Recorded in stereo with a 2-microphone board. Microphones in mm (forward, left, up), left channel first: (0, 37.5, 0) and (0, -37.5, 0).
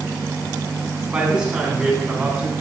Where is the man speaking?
10° right (ahead or behind), 5 m; by 2.5 s 15° right (ahead or behind), 4.5 m.